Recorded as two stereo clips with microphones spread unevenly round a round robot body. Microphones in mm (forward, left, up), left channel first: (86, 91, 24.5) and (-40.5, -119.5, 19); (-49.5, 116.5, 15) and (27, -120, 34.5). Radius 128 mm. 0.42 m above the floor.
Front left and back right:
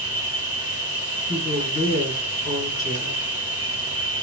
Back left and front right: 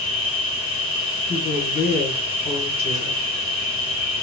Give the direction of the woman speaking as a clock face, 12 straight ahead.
9 o'clock.